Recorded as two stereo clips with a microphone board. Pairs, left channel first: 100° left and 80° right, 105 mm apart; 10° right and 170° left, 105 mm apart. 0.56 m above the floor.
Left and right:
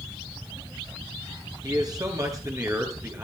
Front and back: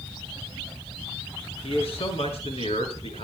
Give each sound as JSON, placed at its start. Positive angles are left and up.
{"t": 1.6, "sound": "a man speaking", "azimuth_deg": -30, "distance_m": 6.5}